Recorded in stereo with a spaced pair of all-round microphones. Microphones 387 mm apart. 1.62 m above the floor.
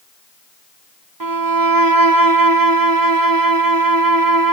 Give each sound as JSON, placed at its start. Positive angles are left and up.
{"t": 1.2, "sound": "a violin", "side_deg": -65, "distance_m": 0.7}